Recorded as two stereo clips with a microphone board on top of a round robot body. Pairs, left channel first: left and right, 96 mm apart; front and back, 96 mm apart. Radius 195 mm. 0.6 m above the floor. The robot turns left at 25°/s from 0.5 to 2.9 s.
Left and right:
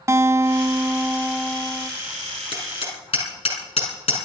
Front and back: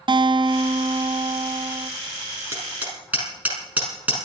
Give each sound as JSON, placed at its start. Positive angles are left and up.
{"t": 0.1, "sound": "a guitar", "azimuth_deg": -150, "distance_m": 0.8}
{"t": 2.5, "sound": "hammering", "azimuth_deg": 115, "distance_m": 6.0}